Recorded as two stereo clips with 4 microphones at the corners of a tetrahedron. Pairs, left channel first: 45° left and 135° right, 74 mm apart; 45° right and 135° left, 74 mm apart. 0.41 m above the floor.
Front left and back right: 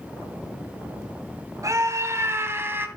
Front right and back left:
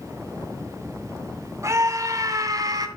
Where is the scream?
Straight behind, 2.5 m; by 2.9 s 165° left, 2.5 m.